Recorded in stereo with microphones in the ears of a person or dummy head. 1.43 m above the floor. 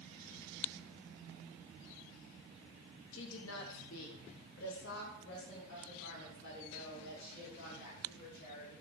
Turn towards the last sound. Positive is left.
turn(degrees=60)  # may be behind; listen again after turning